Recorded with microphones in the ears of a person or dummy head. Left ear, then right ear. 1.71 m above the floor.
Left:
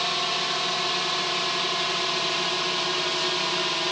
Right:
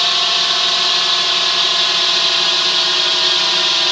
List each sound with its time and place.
0.0 s a drone: 45° right (ahead or behind); by 3.9 s 50° right (ahead or behind)